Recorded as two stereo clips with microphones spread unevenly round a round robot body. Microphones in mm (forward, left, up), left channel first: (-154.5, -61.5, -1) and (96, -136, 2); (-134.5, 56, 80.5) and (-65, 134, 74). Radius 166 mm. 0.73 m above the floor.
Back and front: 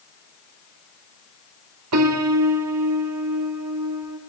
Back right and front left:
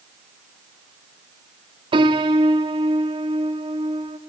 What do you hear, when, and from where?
1.9 s a piano: 15° left, 1.7 m